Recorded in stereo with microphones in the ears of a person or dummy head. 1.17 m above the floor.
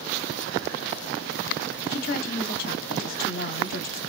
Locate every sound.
1.9 s a woman speaking: 40° left (ahead or behind), 0.7 m